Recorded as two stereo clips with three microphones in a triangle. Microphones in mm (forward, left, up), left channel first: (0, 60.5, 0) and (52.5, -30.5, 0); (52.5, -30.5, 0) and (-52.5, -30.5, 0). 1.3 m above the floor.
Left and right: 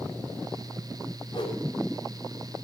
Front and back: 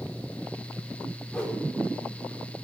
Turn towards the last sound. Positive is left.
turn(degrees=80)